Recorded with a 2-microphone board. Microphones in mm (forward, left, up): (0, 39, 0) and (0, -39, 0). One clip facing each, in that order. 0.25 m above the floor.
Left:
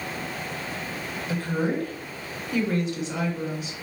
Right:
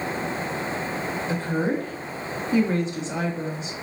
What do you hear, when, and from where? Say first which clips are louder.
1.3 s a woman speaking: even; 30° right (ahead or behind), 1.2 m